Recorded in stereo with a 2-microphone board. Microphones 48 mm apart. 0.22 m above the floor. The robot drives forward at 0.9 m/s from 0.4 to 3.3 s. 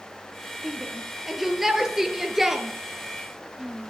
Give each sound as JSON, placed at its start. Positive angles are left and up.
{"t": 0.6, "sound": "a shout", "side_deg": -5, "distance_m": 5.0}